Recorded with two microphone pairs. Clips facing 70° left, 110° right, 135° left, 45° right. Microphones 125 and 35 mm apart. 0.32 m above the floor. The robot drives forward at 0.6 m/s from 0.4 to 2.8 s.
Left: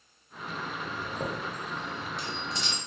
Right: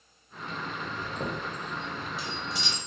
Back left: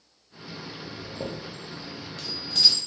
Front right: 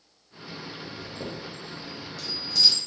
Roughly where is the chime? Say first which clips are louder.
Even, back left 3 dB; behind left.